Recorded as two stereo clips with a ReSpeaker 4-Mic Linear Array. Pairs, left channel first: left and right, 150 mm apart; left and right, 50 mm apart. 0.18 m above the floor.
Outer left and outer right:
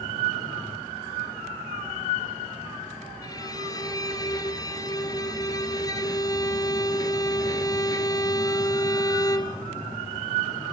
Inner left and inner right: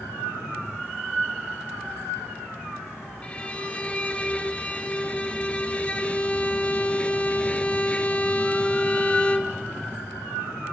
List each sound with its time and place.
3.2 s a violin: 25° left (ahead or behind), 2 m